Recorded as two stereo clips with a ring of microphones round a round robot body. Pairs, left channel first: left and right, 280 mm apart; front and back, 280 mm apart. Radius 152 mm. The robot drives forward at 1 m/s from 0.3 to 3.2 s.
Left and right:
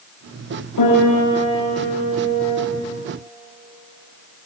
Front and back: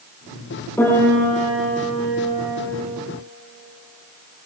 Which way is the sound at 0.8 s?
80° left.